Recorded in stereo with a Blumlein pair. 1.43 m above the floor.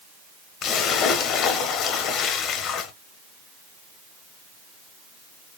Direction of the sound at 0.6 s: 30° left.